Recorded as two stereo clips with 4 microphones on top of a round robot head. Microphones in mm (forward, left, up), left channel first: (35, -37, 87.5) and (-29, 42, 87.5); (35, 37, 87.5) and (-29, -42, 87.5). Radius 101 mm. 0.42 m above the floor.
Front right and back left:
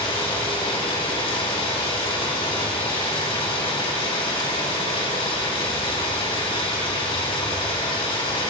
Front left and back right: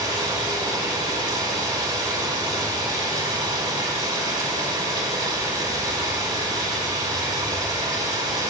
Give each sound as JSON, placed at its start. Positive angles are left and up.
{"t": 0.0, "sound": "running water", "azimuth_deg": -85, "distance_m": 4.0}